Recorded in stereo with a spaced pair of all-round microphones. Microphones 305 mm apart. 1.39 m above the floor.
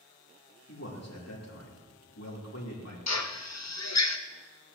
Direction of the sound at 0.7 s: 55° left (ahead or behind).